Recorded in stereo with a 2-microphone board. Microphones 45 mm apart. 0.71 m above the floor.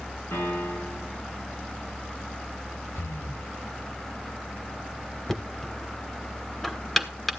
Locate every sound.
0.3 s a piano: 50° left (ahead or behind), 8 m
3.0 s breathing: 75° left (ahead or behind), 4.5 m
5.3 s knocking: 5° left (ahead or behind), 1.5 m